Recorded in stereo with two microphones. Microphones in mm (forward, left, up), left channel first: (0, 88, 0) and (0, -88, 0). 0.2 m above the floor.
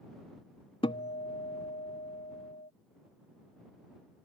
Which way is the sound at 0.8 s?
30° left (ahead or behind).